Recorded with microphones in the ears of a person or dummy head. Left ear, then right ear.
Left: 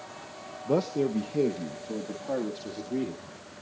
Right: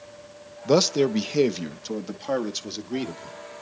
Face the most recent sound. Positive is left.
turn(degrees=-65)  # may be behind; listen again after turning